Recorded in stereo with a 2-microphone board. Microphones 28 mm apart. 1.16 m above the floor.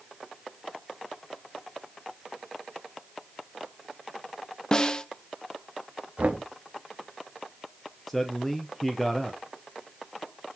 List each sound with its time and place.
4.7 s a snare drum: 25° left (ahead or behind), 0.6 m
6.2 s knocking: 60° right (ahead or behind), 0.9 m
8.1 s a man speaking: 5° left (ahead or behind), 0.7 m